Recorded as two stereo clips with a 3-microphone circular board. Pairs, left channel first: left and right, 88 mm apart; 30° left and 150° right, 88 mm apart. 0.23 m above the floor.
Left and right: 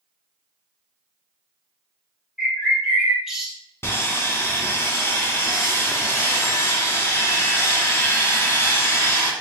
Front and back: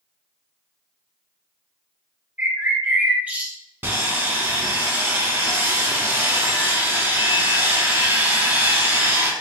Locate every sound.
2.4 s a bird: 160° right, 0.6 m
3.8 s sawing: 150° left, 0.6 m